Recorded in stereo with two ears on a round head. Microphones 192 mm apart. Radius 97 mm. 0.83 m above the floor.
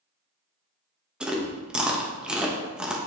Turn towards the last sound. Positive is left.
turn(degrees=-5)  # may be behind; listen again after turning